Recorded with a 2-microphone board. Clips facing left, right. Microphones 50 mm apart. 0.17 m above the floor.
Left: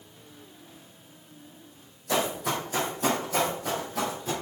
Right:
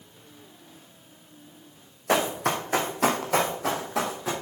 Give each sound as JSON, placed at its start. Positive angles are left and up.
{"t": 2.1, "sound": "running footsteps", "side_deg": -55, "distance_m": 2.5}